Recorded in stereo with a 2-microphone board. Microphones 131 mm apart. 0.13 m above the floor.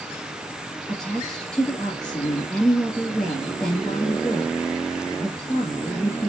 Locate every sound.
0.9 s a woman speaking: 5° left (ahead or behind), 2.5 m